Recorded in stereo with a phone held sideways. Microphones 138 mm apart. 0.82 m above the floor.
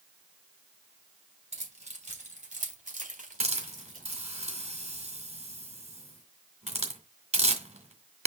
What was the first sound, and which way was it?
Keys jangling, 55° right (ahead or behind).